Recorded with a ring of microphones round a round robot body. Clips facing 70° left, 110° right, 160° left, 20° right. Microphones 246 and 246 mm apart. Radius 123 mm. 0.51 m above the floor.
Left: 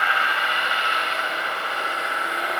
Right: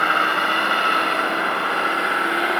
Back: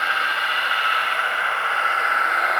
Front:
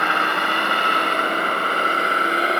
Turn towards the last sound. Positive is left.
turn(degrees=-85)